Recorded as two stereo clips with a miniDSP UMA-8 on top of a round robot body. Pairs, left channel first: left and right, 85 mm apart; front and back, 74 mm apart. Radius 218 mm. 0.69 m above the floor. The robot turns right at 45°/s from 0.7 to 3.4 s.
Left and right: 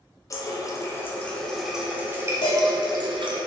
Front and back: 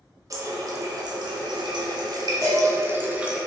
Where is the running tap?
140° left, 0.6 m; by 3.4 s 100° right, 0.6 m.